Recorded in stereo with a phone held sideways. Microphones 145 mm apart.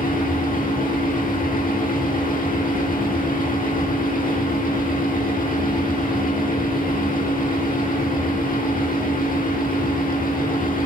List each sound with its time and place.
0.0 s a fan: 75° left (ahead or behind), 1.5 m